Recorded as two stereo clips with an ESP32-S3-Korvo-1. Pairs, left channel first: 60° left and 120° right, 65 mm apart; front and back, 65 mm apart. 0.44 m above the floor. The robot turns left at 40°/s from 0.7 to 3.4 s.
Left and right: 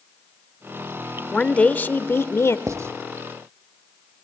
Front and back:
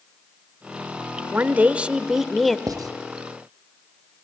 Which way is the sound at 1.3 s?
135° left.